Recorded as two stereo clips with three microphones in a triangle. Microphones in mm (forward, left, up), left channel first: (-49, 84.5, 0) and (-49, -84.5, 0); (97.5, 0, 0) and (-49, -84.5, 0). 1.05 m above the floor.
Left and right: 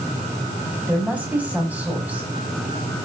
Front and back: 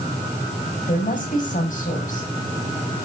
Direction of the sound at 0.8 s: 10° right.